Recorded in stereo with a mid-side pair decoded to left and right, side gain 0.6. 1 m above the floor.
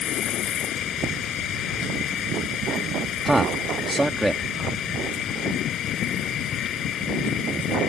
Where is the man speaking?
10° right.